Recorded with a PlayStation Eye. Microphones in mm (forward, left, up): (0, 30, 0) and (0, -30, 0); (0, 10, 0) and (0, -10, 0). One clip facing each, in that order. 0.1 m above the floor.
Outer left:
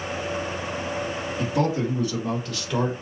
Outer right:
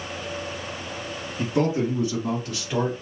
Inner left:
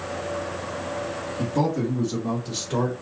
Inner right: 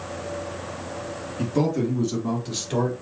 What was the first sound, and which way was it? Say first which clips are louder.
A man speaking: outer right 2 dB, inner right 1 dB; 30° right (ahead or behind).